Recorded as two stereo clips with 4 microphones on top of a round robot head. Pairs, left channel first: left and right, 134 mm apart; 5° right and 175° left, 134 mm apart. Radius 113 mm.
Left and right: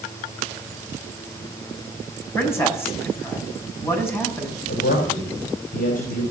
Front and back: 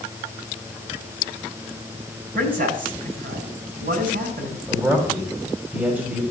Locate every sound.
2.4 s a man speaking: 160° left, 6.5 m
4.7 s a man speaking: 100° left, 3 m